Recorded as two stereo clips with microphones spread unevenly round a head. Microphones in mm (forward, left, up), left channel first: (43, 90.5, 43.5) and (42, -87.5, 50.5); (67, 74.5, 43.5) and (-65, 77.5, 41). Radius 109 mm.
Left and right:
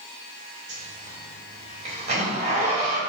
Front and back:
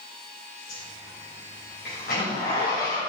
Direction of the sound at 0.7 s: 40° right.